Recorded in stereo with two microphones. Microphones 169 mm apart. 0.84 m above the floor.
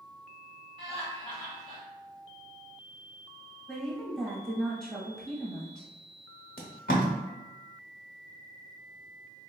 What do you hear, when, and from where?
0.8 s laughter: 30° left (ahead or behind), 1.4 m
3.7 s a woman speaking: 5° left (ahead or behind), 0.9 m
6.6 s tape being pulled: 60° left (ahead or behind), 0.9 m